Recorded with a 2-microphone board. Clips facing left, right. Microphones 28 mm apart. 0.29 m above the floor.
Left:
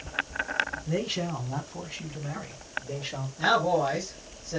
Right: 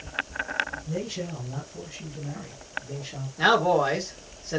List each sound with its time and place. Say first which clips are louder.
0.9 s a man speaking: left 2 dB; 55° left (ahead or behind), 3 m; by 3.3 s 40° left (ahead or behind), 3.5 m
3.4 s a man speaking: right 3 dB; 40° right (ahead or behind), 3 m